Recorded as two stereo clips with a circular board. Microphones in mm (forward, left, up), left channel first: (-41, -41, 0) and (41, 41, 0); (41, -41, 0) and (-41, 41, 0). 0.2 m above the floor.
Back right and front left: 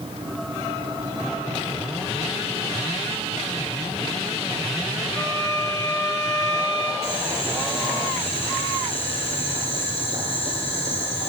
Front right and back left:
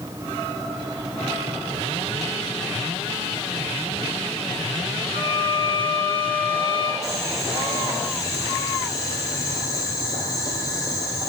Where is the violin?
75° right, 2.5 m.